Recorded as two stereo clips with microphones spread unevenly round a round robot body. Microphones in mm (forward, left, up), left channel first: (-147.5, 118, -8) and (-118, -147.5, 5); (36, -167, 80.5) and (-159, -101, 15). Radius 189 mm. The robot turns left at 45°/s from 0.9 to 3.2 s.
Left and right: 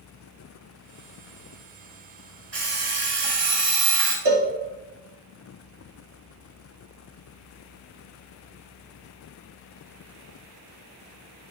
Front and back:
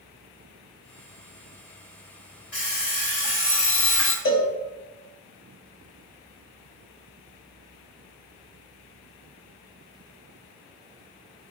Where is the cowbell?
35° right, 1.5 m.